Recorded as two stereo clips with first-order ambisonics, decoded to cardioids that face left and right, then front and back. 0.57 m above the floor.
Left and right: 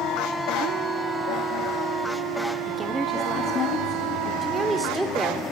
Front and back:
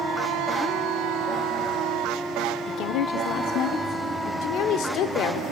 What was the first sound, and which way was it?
A woman speaking, 30° right.